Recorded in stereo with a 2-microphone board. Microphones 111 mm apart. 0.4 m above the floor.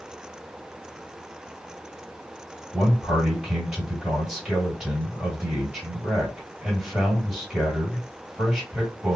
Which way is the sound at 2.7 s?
5° right (ahead or behind).